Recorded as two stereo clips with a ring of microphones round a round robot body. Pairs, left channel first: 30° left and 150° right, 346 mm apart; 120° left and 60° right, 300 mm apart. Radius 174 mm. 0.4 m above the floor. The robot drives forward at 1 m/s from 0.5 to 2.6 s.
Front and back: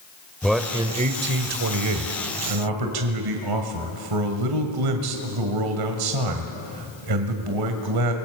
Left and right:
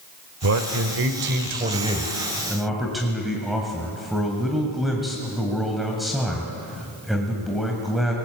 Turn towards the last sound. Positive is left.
turn(degrees=-150)